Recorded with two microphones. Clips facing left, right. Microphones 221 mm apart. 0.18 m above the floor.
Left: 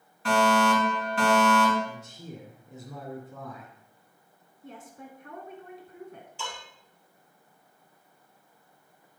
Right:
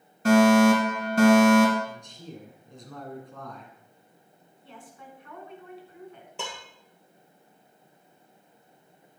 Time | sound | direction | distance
0.2 | a fire alarm | 40° right (ahead or behind) | 3 m
1.9 | a man speaking | 5° left (ahead or behind) | 2 m
4.6 | a woman speaking | 45° left (ahead or behind) | 2 m
6.4 | dishes clattering | 60° right (ahead or behind) | 2.5 m